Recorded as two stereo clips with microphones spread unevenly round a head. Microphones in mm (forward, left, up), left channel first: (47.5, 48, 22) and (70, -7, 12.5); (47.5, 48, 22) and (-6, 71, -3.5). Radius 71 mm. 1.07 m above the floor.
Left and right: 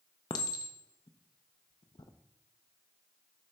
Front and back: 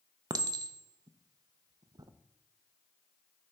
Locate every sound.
0.3 s a clink: 140° left, 0.5 m